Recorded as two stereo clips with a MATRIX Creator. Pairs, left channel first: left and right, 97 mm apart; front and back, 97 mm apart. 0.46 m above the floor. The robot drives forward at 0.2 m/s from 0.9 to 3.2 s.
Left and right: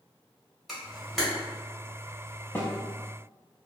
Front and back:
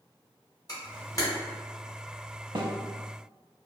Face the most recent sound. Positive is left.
turn(degrees=160)